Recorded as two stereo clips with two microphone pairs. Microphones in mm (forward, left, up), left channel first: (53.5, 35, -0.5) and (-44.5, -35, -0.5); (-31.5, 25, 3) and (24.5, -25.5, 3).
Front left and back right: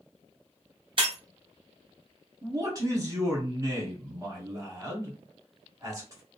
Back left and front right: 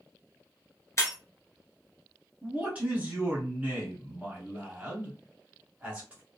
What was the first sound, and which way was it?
Breaking glass, straight behind.